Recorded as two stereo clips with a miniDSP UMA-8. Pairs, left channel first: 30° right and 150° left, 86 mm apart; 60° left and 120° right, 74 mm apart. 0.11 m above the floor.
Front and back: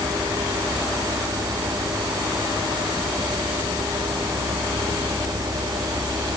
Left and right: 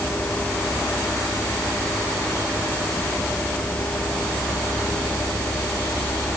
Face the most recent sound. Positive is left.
No sound to turn to.